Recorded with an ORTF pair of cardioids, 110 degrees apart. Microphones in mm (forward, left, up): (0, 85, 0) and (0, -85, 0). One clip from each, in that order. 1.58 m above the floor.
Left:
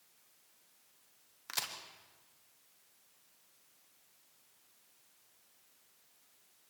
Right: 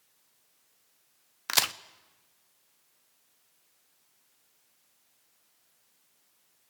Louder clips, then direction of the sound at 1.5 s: Right 13 dB; 65° right.